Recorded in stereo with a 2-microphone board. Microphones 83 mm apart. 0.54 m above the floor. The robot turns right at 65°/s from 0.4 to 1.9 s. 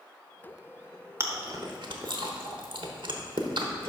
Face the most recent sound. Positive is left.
turn(degrees=-65)  # may be behind; listen again after turning